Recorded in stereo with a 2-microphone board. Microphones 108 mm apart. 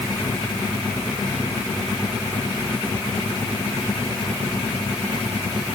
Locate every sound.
Only background noise.